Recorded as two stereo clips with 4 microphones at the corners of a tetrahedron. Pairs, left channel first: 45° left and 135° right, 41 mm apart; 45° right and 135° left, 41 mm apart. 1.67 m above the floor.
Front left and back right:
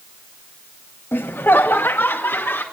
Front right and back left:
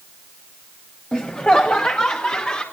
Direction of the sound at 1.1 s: 20° left.